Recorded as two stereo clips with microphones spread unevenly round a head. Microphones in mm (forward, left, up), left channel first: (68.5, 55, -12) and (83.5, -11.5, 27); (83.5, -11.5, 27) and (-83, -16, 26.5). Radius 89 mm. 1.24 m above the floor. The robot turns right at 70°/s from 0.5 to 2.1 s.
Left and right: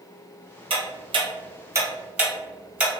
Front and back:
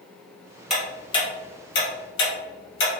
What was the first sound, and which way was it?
Ticking, 90° right.